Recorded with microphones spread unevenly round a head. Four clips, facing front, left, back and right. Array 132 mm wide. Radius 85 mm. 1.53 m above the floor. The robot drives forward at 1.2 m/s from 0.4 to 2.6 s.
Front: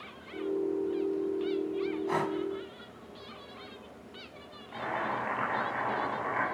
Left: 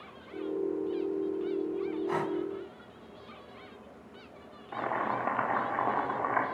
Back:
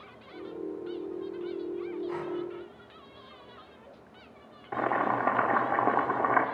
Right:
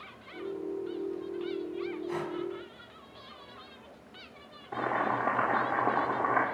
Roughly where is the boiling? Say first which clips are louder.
Right 2 dB, back 6 dB; behind right.